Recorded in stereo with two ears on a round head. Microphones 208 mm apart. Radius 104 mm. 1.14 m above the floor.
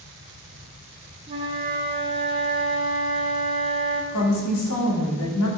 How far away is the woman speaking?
About 3 m.